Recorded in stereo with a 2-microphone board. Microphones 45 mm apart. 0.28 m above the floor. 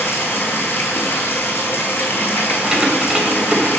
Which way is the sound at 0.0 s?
55° left (ahead or behind).